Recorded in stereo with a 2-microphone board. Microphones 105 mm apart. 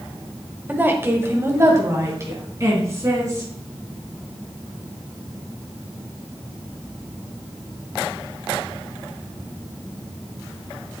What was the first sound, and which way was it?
A woman speaking, 15° right (ahead or behind).